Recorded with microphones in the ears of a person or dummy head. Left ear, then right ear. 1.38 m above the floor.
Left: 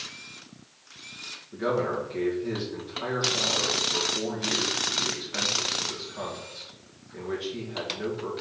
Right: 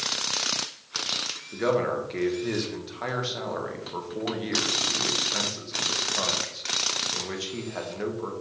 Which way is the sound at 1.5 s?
80° right.